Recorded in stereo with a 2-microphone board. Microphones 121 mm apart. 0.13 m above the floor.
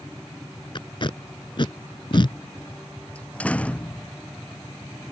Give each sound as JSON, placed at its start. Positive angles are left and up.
{"t": 0.8, "sound": "tape being pulled", "side_deg": 45}
{"t": 3.1, "sound": "a door slam", "side_deg": 10}